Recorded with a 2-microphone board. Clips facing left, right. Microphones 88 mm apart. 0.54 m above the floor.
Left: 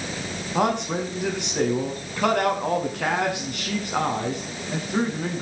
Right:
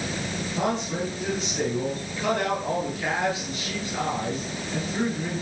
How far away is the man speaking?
About 5.5 m.